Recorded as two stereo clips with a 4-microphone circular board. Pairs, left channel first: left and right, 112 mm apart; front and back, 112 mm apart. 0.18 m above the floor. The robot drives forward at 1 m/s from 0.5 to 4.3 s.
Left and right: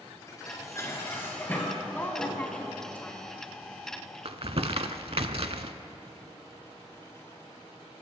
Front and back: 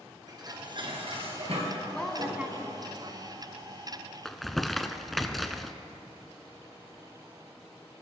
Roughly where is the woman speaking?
Ahead left.